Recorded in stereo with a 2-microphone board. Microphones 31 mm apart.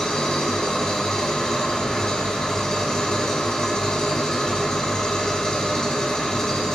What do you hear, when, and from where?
0.0 s an engine running: 20° left (ahead or behind), 1.4 m